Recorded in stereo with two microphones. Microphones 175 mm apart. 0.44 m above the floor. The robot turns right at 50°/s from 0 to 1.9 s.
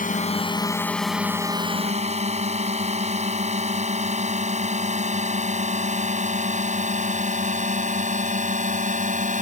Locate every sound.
0.0 s a drone: 50° left (ahead or behind); by 9.4 s 45° right (ahead or behind)